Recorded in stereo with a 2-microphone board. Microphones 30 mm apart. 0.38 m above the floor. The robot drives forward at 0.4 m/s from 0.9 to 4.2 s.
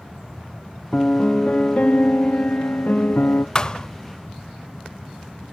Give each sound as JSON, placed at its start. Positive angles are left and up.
{"t": 0.9, "sound": "a piano", "side_deg": 40, "distance_m": 1.6}
{"t": 3.5, "sound": "a thud", "side_deg": 25, "distance_m": 0.6}